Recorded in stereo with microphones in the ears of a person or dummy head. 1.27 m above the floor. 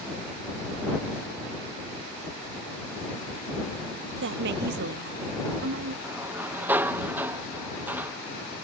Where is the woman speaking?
55° right (ahead or behind); by 5.9 s 50° right (ahead or behind).